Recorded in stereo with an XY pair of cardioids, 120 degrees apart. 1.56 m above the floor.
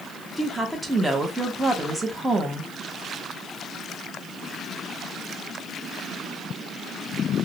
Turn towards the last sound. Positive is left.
turn(degrees=-10)